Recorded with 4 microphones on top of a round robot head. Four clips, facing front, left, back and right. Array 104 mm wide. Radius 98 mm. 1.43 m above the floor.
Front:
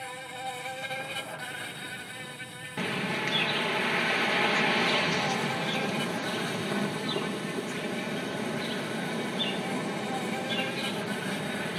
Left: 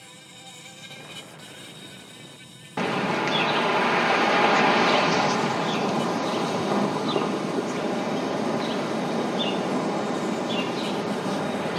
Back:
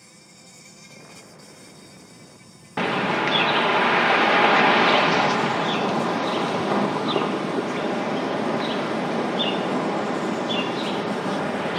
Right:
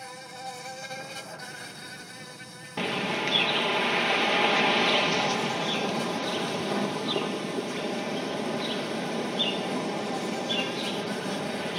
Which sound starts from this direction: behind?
A bird, at 2.8 s.